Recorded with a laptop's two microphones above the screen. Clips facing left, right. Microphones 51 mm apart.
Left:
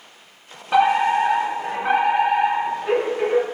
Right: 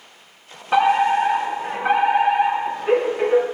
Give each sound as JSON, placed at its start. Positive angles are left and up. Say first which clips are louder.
{"t": 0.7, "sound": "a fire alarm", "louder": "even", "side_deg": -10, "distance_m": 3.0}